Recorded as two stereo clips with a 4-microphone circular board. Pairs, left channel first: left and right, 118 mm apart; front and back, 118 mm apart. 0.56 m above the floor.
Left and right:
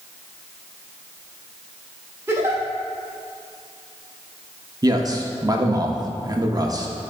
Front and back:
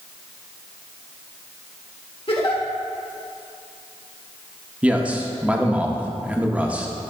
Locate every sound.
2.3 s a giggle: 25° right, 1.3 m
4.8 s a man speaking: 110° right, 0.7 m